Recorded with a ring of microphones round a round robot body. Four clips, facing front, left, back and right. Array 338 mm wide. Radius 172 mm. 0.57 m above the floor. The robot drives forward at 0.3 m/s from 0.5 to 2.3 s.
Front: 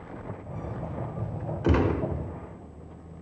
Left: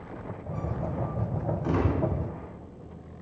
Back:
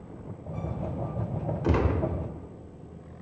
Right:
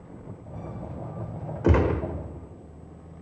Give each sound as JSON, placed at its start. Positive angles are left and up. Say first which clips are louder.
{"t": 1.6, "sound": "a gunshot", "louder": "right 6 dB, front 3 dB", "azimuth_deg": -80, "distance_m": 1.4}